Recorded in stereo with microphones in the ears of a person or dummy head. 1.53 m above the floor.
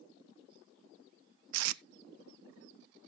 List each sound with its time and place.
1.5 s tape being pulled: 85° right, 0.5 m